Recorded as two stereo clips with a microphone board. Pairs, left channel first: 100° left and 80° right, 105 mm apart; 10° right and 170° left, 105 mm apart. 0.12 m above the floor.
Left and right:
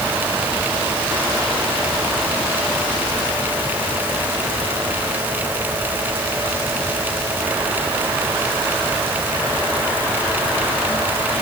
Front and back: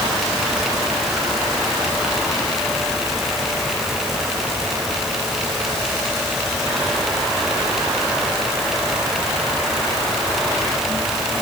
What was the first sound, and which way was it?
Only background noise.